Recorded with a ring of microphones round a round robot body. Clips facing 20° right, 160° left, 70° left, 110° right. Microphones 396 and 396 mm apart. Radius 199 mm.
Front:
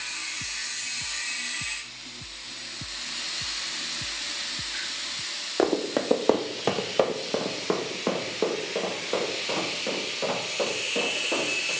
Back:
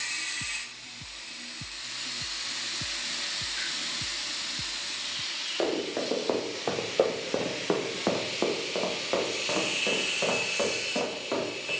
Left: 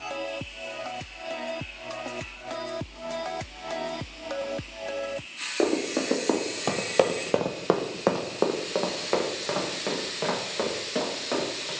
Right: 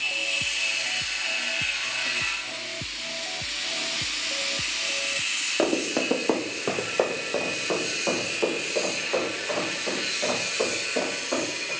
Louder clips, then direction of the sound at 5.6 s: Front 5 dB, even; 50° right.